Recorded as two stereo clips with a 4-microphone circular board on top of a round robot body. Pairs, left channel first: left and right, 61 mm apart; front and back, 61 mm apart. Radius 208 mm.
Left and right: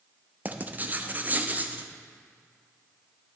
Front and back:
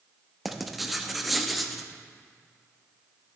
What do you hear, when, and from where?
0.5 s writing: 95° right, 0.9 m